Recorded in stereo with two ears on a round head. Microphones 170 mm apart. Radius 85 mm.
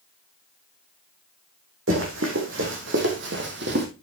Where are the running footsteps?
75° right (ahead or behind), 3.5 m; by 3.9 s 60° right (ahead or behind), 2.5 m.